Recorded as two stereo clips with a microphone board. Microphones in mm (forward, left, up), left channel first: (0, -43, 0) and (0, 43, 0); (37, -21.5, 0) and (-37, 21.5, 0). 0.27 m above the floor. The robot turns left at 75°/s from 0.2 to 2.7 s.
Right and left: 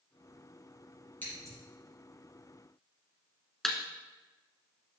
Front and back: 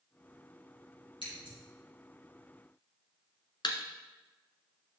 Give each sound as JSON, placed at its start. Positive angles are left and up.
{"t": 1.2, "sound": "scissors", "azimuth_deg": -20, "distance_m": 4.5}
{"t": 3.6, "sound": "a thud", "azimuth_deg": -5, "distance_m": 1.1}